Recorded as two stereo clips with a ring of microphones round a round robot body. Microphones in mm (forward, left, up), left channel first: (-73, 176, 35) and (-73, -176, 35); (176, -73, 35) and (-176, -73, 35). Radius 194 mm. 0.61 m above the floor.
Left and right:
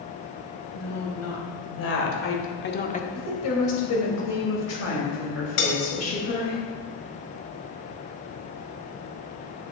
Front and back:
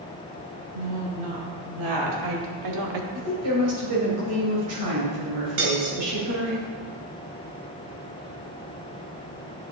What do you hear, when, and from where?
0.7 s a woman speaking: 135° left, 3.5 m; by 3.0 s 160° left, 1.1 m
3.1 s a woman speaking: 135° left, 3 m
5.6 s cutlery clinking: 120° left, 2.0 m